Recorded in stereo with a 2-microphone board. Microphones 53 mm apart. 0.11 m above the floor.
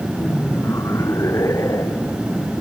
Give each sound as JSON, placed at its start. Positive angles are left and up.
{"t": 0.2, "sound": "laughter", "side_deg": 70}